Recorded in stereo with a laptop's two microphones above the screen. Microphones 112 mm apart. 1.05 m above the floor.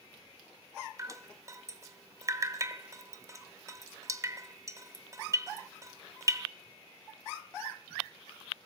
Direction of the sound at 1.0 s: 30° right (ahead or behind).